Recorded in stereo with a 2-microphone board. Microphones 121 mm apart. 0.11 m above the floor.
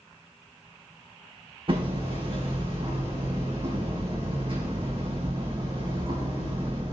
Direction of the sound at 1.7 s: 50° right (ahead or behind).